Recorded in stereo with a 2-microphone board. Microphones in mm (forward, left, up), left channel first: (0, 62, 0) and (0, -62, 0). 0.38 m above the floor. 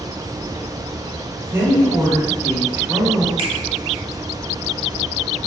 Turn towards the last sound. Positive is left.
turn(degrees=-50)  # may be behind; listen again after turning